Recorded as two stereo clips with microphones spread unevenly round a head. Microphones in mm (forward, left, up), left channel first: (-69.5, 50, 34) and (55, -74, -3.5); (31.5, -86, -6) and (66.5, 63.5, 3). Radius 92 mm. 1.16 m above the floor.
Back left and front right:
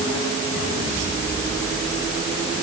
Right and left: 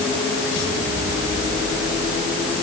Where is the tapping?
No tapping in this recording.